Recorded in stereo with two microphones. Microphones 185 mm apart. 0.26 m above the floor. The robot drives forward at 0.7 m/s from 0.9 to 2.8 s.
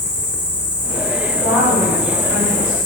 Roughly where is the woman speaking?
Centre.